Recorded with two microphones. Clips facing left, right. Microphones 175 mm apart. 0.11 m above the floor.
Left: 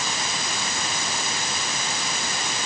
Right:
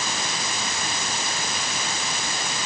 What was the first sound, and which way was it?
Only background noise.